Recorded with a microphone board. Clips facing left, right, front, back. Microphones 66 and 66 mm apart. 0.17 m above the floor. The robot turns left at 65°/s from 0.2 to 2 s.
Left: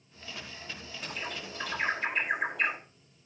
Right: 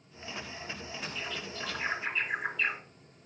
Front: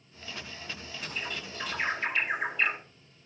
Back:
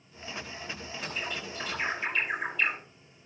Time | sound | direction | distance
1.0 | a bird | 130° left | 6.5 m